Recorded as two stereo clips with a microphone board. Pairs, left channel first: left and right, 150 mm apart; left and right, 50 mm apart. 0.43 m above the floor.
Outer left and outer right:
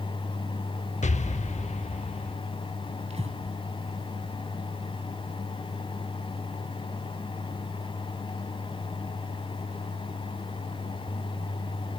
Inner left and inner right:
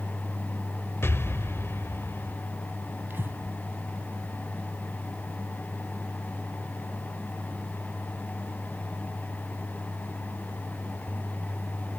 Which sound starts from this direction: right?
Breathing, at 3.1 s.